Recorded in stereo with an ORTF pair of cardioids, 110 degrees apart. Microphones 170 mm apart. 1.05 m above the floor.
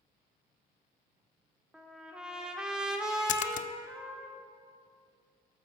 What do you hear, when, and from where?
1.7 s a trumpet: 5° right, 1.6 m
3.3 s a splash: 50° left, 0.5 m